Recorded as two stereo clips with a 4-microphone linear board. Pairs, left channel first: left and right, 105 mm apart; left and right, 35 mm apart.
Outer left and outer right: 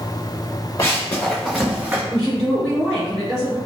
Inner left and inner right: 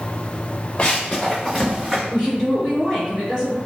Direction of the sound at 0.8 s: 30° left (ahead or behind).